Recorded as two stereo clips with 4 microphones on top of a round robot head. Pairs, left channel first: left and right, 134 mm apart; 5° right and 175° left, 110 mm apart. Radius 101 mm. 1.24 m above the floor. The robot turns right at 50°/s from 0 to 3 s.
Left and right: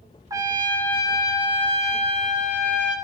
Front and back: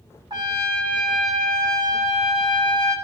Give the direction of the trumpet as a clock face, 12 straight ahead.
5 o'clock.